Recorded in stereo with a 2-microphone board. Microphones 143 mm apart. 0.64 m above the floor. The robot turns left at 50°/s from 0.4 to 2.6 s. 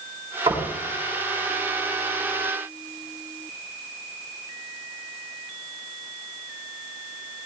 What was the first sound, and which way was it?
Knocking, 35° right (ahead or behind).